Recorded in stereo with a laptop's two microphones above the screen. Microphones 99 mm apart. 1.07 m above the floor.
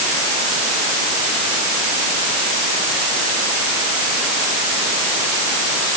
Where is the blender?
No blender in this recording.